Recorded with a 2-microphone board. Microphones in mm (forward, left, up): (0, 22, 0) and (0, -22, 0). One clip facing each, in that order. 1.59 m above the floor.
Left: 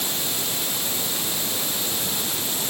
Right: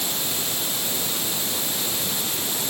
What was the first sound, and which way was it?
Only background noise.